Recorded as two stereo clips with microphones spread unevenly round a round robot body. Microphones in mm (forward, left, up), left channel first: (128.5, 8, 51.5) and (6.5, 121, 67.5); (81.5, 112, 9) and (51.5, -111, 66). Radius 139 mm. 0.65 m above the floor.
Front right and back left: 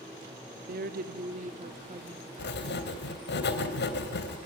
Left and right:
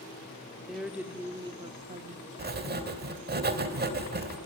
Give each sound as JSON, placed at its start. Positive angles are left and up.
{"t": 0.7, "sound": "a woman speaking", "azimuth_deg": 165, "distance_m": 1.6}
{"t": 2.4, "sound": "writing", "azimuth_deg": -50, "distance_m": 3.0}